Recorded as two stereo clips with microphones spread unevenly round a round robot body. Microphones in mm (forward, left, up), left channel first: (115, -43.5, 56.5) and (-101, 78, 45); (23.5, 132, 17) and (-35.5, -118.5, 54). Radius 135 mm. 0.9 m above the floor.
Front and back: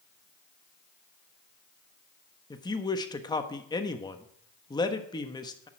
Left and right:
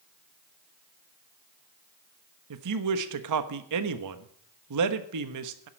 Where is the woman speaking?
105° right, 1.2 m.